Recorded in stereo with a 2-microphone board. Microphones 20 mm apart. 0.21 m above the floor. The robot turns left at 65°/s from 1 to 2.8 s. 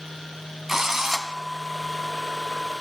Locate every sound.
0.7 s a drill: 20° right (ahead or behind), 1.3 m; by 1.3 s 5° right (ahead or behind), 1.3 m